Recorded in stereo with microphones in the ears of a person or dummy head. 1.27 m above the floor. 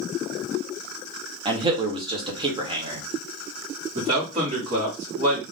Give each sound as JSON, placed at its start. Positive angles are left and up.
{"t": 1.4, "sound": "a man speaking", "side_deg": -20, "distance_m": 0.9}
{"t": 4.0, "sound": "a man speaking", "side_deg": -25, "distance_m": 1.6}